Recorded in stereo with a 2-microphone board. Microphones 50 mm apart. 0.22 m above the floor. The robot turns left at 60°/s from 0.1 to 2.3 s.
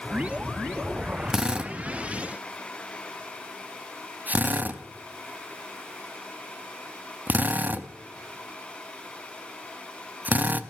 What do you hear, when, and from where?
1.3 s a drill: 15° right (ahead or behind), 0.6 m; by 10.6 s 35° right (ahead or behind), 0.6 m